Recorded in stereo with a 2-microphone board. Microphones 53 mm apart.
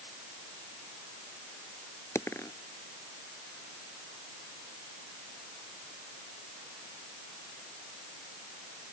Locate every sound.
2.1 s a dropped coin: 60° left (ahead or behind)